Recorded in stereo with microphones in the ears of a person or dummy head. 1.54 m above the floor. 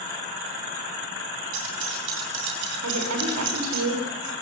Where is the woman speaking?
85° right, 6 m.